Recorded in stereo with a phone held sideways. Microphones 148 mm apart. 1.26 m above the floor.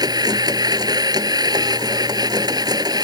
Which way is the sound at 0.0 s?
25° right (ahead or behind).